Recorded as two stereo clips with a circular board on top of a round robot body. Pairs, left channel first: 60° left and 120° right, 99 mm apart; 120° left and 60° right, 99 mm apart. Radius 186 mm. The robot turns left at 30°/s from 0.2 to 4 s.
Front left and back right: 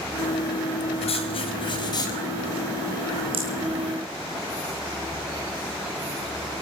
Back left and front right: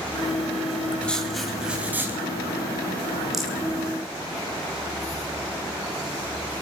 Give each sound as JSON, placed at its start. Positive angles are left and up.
{"t": 1.0, "sound": "writing", "azimuth_deg": 40, "distance_m": 1.9}
{"t": 3.3, "sound": "a rattle", "azimuth_deg": -145, "distance_m": 0.9}